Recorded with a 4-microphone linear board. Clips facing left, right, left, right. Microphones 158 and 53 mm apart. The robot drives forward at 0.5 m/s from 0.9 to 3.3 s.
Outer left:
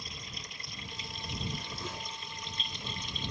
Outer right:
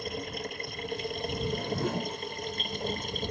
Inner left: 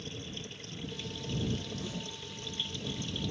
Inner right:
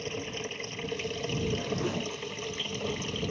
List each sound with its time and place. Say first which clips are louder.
0.0 s running water: outer right 13 dB, inner right 8 dB; 60° right (ahead or behind); by 3.3 s 50° right (ahead or behind)
1.4 s a whoosh: outer right 11 dB, inner right 8 dB; 70° right (ahead or behind); by 2.2 s 50° right (ahead or behind)